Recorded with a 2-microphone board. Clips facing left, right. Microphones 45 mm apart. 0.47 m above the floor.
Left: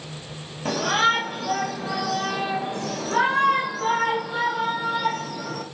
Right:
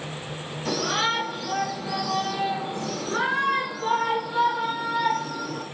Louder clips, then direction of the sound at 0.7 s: Left 4 dB; 40° left (ahead or behind).